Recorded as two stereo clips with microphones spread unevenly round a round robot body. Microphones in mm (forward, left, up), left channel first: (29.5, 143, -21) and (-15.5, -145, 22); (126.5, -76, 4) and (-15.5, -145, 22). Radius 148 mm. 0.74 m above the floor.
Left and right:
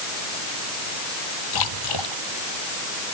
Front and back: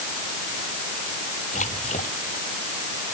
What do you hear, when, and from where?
1.5 s a splash: 95° left